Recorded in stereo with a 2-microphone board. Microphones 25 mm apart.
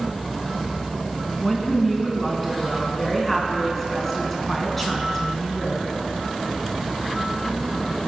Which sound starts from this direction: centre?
A woman speaking, at 1.4 s.